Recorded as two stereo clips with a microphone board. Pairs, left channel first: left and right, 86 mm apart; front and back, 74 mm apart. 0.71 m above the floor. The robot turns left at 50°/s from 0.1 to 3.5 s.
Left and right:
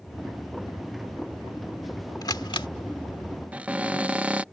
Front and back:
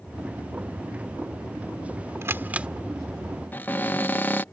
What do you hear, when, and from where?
2.2 s a camera shutter: 130° left; by 2.7 s 105° left
3.5 s a cupboard door: 35° right